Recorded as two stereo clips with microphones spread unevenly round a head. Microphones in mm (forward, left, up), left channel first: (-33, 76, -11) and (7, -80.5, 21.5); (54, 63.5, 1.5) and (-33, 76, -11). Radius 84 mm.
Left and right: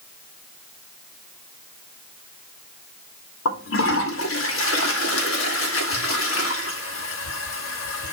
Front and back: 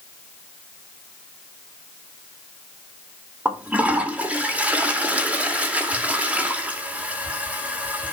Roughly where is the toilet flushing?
Left.